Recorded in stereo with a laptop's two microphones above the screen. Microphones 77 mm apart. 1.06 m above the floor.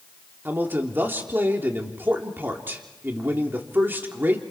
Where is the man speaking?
30° right (ahead or behind), 3 m.